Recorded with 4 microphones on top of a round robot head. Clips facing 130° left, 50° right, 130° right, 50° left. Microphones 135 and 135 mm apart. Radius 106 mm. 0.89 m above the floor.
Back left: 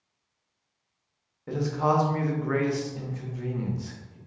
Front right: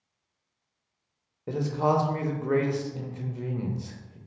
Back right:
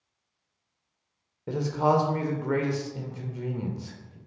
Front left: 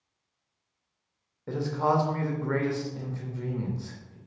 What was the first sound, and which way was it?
A man speaking, 75° right.